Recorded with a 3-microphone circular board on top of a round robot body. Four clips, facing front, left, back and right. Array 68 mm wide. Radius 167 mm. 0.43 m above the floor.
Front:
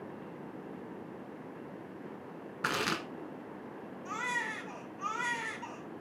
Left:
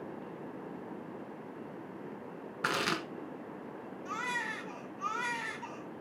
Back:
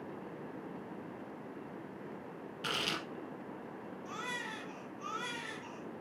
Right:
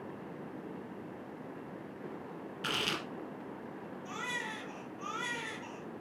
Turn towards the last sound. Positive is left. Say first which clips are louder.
# left 4 dB, front 7 dB
turn(degrees=25)